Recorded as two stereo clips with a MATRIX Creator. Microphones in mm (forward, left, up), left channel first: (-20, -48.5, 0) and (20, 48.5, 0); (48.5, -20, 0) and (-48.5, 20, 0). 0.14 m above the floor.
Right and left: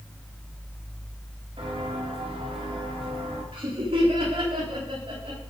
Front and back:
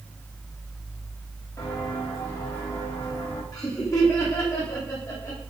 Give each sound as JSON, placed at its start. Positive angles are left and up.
{"t": 1.6, "sound": "footsteps", "azimuth_deg": 30, "distance_m": 9.0}
{"t": 3.5, "sound": "laughter", "azimuth_deg": 35, "distance_m": 9.0}